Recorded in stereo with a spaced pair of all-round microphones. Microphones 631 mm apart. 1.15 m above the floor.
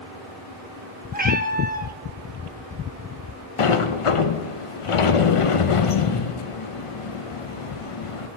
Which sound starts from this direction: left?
A sliding door, at 3.6 s.